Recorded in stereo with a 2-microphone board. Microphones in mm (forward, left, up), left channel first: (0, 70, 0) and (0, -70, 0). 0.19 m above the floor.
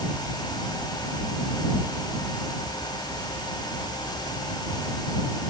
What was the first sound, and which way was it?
Only background noise.